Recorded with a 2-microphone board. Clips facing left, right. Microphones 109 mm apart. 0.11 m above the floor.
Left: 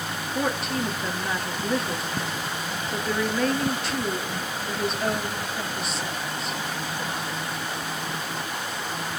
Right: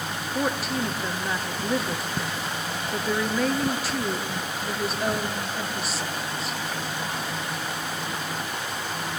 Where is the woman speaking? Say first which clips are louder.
Even; 5° right (ahead or behind), 2.5 m.